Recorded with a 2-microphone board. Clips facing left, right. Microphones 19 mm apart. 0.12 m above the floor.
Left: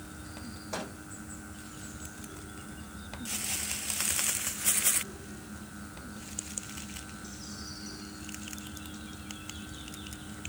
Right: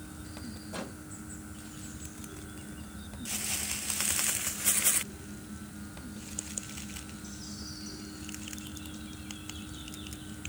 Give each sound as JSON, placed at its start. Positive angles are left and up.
{"t": 0.7, "sound": "a microwave", "side_deg": 70, "distance_m": 4.5}